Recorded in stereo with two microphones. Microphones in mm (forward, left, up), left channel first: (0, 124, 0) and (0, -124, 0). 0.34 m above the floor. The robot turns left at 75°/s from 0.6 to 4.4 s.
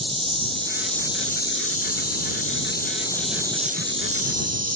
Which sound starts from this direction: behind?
An insect, at 0.0 s.